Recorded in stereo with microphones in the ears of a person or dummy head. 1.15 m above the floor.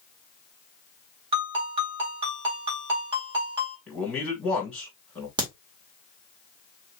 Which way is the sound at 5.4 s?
25° right (ahead or behind).